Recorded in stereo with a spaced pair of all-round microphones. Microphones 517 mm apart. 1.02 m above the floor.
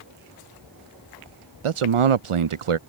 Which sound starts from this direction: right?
A man speaking, at 1.6 s.